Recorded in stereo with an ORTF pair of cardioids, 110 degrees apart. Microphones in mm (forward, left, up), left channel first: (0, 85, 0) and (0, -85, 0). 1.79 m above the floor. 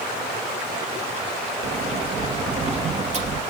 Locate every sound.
1.6 s a sliding door: 40° right, 2.5 m